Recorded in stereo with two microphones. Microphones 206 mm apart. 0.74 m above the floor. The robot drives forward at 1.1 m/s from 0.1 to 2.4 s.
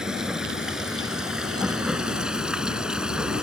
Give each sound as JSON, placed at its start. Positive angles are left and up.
{"t": 0.0, "sound": "running water", "side_deg": -5}